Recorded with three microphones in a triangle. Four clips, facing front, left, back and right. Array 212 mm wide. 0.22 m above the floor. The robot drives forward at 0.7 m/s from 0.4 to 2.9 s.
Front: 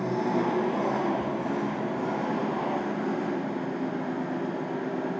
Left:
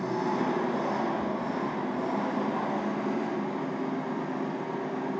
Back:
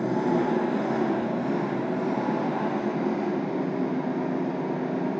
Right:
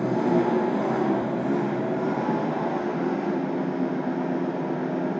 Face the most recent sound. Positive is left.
turn(degrees=-135)